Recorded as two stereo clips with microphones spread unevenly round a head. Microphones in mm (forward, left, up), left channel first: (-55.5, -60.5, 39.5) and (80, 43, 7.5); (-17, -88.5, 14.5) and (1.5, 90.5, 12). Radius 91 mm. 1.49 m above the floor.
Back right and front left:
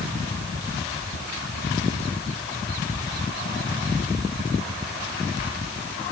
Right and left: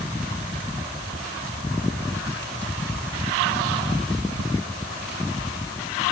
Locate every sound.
Only background noise.